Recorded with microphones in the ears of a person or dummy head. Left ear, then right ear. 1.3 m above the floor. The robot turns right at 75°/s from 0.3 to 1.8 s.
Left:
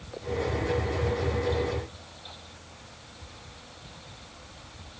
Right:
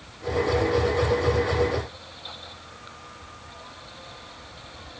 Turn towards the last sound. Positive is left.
No sound to turn to.